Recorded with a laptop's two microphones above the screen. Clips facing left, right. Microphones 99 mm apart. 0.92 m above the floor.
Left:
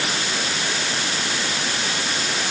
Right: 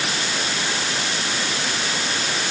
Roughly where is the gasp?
I don't hear a gasp.